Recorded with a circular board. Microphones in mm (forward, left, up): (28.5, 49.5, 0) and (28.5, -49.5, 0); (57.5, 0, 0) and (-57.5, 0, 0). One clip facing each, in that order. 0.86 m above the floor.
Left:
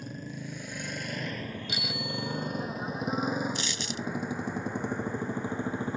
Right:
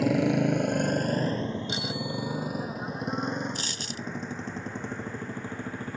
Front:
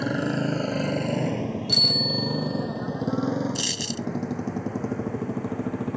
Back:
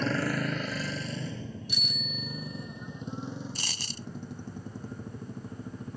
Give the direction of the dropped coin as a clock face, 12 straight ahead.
5 o'clock.